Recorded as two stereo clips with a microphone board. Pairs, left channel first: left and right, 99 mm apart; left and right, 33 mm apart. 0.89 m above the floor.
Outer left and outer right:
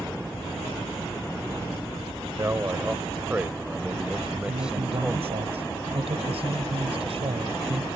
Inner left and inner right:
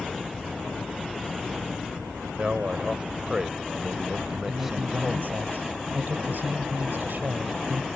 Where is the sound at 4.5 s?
75° right (ahead or behind).